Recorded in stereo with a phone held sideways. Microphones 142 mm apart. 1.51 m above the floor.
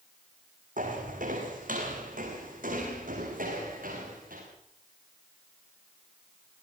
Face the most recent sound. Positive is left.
turn(degrees=-75)  # may be behind; listen again after turning